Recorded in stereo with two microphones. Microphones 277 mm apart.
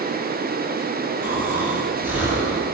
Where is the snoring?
10° right (ahead or behind), 3 m.